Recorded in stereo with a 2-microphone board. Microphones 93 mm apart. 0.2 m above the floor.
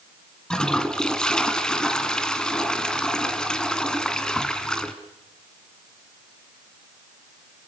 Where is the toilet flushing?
5° left (ahead or behind), 2 m.